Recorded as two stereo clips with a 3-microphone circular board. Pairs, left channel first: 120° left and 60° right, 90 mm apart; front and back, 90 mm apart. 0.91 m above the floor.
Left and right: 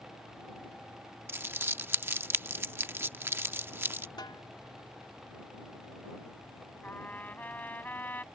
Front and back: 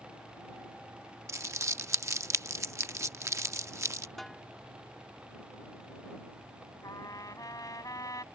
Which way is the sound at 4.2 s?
85° left.